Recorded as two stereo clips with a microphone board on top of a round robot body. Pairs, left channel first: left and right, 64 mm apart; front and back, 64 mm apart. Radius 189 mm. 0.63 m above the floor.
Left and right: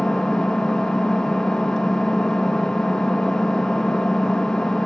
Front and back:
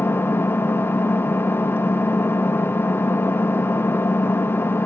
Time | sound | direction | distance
0.0 | an engine running | 15° left | 0.7 m